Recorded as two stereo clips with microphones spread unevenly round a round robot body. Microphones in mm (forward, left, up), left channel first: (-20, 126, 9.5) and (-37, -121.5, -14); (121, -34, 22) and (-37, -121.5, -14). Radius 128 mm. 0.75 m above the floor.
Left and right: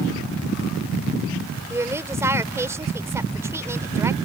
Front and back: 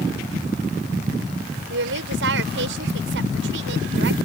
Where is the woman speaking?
175° right.